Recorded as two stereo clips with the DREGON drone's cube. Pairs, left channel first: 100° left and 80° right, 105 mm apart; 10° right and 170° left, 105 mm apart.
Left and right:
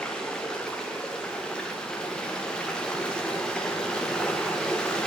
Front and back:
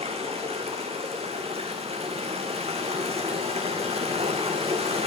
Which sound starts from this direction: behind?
Running water, at 0.0 s.